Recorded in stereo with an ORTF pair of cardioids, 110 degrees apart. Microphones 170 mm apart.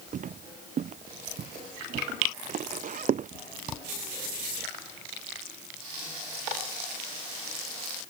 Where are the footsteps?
50° right.